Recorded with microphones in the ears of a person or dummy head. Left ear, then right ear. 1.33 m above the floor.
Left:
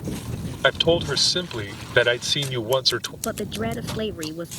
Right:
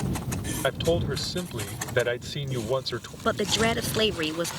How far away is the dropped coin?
I don't hear a dropped coin.